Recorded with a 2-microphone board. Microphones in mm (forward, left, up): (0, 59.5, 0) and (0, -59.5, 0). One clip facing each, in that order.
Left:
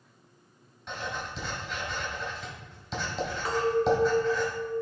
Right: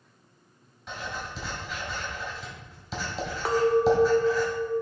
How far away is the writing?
About 2 m.